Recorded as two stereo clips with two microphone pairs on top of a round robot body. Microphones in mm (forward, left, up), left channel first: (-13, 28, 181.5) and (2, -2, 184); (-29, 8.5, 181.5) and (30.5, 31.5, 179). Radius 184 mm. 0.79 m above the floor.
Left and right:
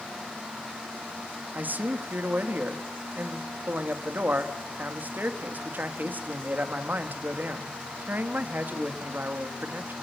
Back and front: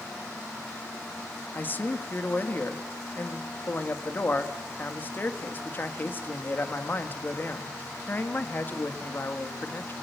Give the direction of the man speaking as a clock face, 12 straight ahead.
3 o'clock.